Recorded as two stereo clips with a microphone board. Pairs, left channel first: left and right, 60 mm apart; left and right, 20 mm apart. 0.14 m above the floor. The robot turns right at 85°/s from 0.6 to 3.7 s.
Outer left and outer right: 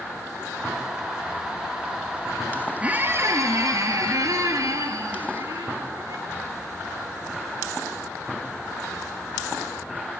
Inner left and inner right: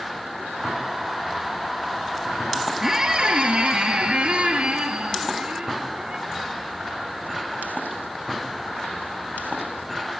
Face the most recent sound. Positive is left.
turn(degrees=-85)